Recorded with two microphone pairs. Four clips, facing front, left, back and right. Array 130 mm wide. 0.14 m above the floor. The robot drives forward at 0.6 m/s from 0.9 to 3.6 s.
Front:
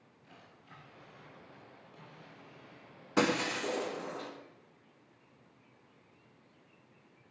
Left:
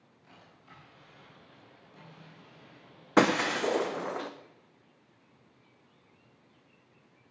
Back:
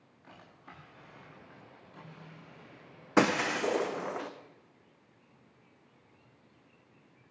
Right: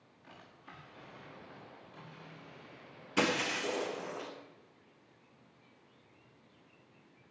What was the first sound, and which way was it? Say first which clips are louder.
A drawer: right 2 dB, back 5 dB; 165° right.